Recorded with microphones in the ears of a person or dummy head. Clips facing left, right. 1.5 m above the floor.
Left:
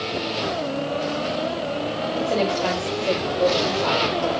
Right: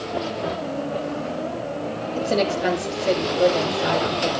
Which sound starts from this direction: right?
A woman speaking, at 2.1 s.